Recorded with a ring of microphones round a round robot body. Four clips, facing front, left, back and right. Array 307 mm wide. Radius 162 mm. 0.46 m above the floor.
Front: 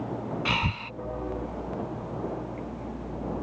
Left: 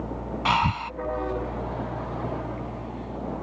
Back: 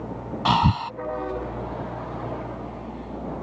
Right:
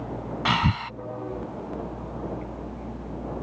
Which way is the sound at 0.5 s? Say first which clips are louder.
Left 2 dB, back 14 dB; 160° right.